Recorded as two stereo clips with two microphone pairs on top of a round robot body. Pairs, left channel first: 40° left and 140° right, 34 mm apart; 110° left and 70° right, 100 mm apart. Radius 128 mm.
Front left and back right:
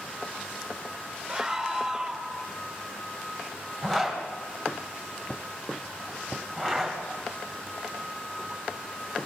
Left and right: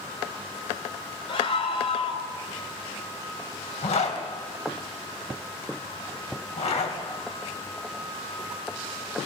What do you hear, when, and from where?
1.3 s a scream: 140° left, 5 m
3.8 s a zipper: 125° left, 4.5 m